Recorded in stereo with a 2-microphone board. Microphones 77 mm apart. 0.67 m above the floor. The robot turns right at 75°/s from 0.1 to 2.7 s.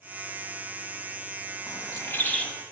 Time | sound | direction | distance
1.7 | a bird | 110° left | 1.2 m